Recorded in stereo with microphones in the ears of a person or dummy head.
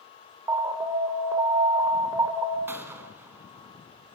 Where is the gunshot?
15° right (ahead or behind), 2.5 m.